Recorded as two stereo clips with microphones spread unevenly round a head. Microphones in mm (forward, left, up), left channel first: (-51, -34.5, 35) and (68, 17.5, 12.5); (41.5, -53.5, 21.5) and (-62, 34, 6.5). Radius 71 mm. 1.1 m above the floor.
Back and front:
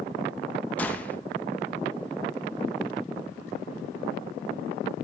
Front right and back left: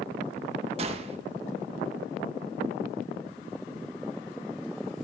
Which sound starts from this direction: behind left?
A gunshot, at 0.8 s.